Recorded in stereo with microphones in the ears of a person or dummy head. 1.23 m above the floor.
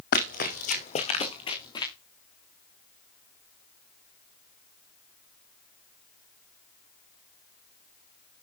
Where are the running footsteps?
50° left (ahead or behind), 3 m; by 1.9 s 20° left (ahead or behind), 4.5 m.